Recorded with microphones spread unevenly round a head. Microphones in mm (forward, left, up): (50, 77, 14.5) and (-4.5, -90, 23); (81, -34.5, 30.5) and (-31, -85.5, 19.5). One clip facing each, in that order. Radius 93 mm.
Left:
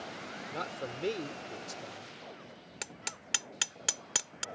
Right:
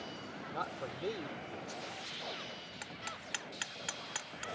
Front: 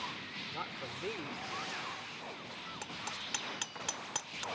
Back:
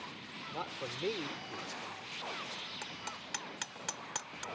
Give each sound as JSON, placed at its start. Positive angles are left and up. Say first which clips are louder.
{"t": 0.5, "sound": "a man speaking", "louder": "left 3 dB, back 3 dB", "azimuth_deg": 135}
{"t": 2.8, "sound": "hammering", "louder": "even, front 2 dB", "azimuth_deg": 110}